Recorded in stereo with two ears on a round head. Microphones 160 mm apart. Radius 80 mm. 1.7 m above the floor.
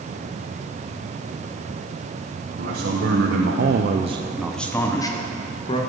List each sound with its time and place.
2.6 s a man speaking: 65° right (ahead or behind), 1.5 m; by 5.8 s 30° left (ahead or behind), 1.8 m